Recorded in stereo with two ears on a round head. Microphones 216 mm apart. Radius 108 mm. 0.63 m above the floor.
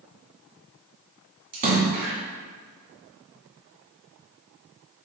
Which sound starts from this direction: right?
A splash, at 1.5 s.